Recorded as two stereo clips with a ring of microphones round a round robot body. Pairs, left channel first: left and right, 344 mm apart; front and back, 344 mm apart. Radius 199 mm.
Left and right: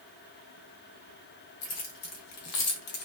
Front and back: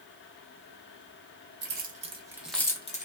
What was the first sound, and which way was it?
Keys jangling, 125° left.